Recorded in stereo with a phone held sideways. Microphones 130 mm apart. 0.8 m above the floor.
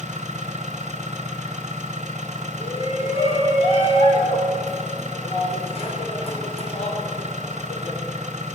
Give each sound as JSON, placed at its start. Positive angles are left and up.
{"t": 0.0, "sound": "an engine running", "side_deg": -70, "distance_m": 1.5}
{"t": 2.6, "sound": "a shout", "side_deg": 55, "distance_m": 3.0}